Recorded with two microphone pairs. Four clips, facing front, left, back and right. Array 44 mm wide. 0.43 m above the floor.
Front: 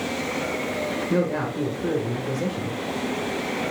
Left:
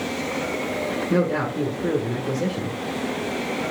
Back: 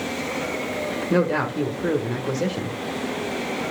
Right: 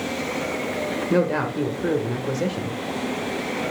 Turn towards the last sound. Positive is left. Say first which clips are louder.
# right 1 dB, back 4 dB
turn(degrees=-145)